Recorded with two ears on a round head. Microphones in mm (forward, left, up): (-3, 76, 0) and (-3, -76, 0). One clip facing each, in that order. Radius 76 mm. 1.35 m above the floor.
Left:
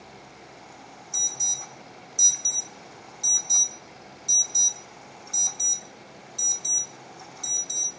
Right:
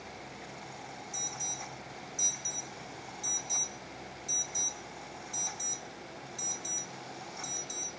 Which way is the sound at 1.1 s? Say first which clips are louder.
Even; 45° left (ahead or behind).